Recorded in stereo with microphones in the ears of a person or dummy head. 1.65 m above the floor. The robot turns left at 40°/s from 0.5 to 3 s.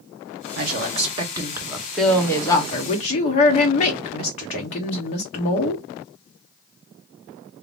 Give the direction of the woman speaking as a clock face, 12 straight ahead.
4 o'clock.